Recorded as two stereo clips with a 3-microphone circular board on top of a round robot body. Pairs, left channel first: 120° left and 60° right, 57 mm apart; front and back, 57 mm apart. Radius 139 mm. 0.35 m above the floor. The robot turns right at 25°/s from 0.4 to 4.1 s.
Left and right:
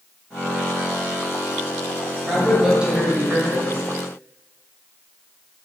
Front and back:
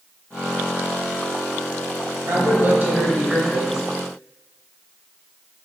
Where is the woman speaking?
140° right, 2.5 m; by 3.8 s 105° right, 2.5 m.